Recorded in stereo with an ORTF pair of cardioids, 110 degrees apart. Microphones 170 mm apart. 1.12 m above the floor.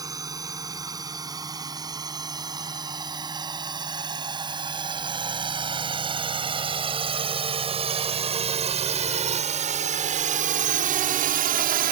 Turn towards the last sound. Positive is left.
turn(degrees=-70)